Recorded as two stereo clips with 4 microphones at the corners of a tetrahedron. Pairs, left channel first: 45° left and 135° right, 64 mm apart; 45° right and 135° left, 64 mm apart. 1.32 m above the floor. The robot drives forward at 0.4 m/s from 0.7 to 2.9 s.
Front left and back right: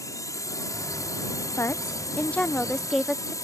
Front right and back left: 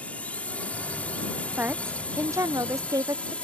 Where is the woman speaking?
80° left; by 3.3 s 130° left.